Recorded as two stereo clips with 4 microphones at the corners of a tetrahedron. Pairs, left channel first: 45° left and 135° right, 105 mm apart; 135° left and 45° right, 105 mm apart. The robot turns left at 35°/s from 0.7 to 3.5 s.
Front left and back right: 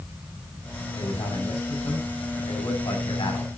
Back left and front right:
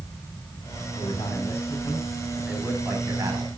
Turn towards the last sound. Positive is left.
turn(degrees=0)